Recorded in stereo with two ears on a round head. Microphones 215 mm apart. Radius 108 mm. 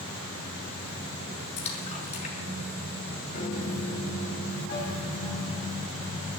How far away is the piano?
About 3 m.